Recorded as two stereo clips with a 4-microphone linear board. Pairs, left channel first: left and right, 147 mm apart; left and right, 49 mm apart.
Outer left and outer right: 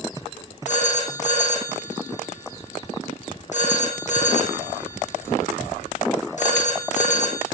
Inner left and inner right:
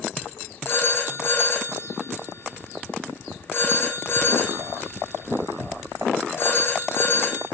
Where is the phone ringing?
55° left (ahead or behind), 4 m.